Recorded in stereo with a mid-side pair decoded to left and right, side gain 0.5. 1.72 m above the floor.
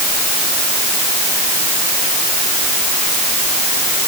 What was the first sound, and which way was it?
Only background noise.